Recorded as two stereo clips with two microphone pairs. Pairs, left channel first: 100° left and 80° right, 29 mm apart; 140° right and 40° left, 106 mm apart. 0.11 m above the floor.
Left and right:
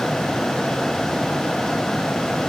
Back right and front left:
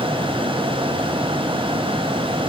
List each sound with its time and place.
Only background noise.